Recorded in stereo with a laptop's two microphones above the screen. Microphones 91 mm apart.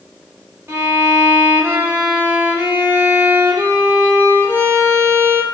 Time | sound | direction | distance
0.7 | a violin | 25° right (ahead or behind) | 0.7 m